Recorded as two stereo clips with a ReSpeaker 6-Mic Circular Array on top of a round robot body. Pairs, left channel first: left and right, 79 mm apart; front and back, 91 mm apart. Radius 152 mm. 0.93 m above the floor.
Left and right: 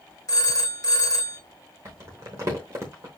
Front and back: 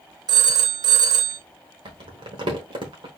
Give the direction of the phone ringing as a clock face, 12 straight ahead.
7 o'clock.